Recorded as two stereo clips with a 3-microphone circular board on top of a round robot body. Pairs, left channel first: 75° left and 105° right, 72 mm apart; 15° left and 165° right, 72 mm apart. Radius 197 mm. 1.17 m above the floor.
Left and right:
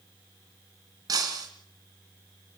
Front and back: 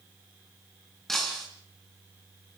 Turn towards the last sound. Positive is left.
turn(degrees=-70)